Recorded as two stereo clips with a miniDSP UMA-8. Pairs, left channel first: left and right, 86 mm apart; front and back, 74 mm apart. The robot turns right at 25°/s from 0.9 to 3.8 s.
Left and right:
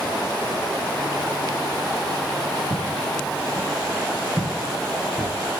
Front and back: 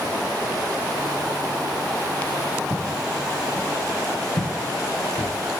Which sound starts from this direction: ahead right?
Footsteps, at 2.7 s.